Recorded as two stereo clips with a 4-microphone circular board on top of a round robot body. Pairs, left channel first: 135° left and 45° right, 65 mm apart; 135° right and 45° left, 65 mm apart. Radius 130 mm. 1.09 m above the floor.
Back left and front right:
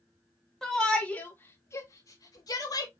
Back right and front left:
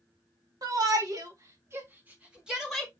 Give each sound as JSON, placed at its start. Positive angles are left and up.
{"t": 0.6, "sound": "a shout", "azimuth_deg": 55, "distance_m": 2.5}